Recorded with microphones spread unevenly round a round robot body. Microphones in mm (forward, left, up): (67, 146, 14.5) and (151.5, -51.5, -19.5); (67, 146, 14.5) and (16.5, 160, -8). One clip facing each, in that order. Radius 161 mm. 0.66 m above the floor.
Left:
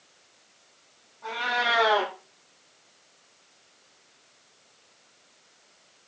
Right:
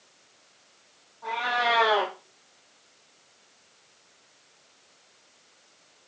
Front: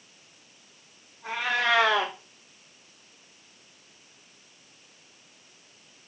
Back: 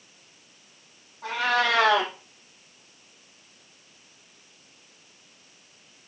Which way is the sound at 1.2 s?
170° right.